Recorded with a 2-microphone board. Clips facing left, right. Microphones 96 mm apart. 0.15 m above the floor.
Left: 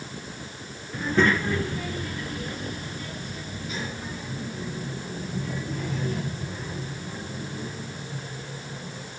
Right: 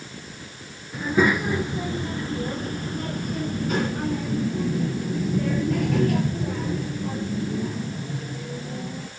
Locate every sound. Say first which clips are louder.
0.9 s a child speaking: right 2 dB; 5° right (ahead or behind), 1.5 m; by 9.1 s 60° right (ahead or behind), 3.5 m